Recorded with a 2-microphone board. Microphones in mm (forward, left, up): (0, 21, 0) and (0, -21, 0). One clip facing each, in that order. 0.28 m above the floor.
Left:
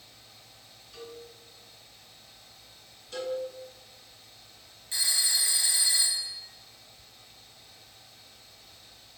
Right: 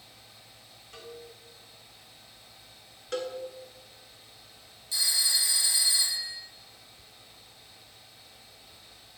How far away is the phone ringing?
About 2.5 m.